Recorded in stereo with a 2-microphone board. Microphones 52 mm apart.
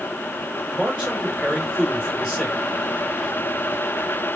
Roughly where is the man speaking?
Centre.